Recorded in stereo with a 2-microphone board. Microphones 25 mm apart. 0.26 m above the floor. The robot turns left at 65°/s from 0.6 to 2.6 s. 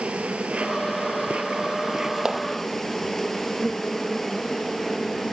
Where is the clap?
30° right (ahead or behind); by 2.5 s 15° right (ahead or behind).